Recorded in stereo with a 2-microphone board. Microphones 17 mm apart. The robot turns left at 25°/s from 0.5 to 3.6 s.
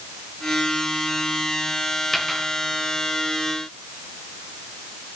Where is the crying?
No crying in this recording.